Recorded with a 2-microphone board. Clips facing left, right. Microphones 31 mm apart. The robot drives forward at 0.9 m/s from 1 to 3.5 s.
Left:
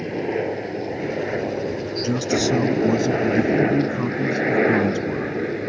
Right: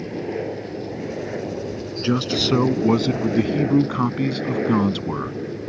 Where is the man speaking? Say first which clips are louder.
Right 1 dB; 40° right (ahead or behind); by 5.4 s 60° right (ahead or behind).